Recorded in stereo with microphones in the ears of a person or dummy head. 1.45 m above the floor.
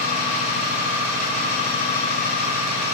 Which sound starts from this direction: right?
An engine running, at 0.0 s.